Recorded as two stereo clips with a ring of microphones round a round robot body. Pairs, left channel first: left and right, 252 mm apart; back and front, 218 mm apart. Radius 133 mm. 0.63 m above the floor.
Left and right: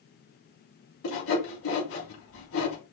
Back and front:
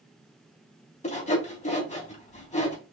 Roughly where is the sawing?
Behind left.